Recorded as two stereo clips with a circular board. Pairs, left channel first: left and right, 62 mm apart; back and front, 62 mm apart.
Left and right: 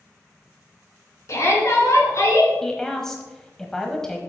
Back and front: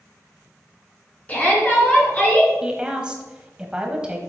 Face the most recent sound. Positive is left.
turn(degrees=25)